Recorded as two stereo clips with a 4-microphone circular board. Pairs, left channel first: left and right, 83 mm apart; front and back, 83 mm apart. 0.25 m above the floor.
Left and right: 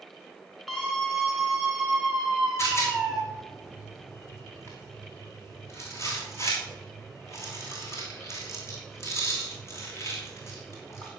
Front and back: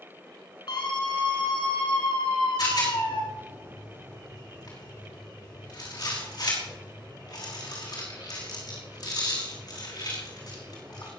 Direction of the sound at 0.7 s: 5° left.